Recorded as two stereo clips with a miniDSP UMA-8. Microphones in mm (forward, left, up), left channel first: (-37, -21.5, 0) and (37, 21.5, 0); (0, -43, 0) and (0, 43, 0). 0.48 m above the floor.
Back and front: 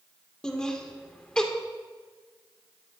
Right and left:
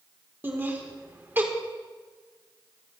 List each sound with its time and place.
0.4 s laughter: 135° left, 1.4 m